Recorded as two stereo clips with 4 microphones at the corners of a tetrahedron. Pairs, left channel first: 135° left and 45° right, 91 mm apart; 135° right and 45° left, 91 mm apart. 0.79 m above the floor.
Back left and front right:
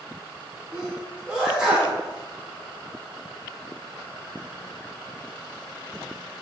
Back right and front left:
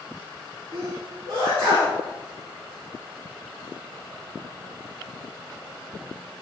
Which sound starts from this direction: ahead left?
A sneeze, at 0.7 s.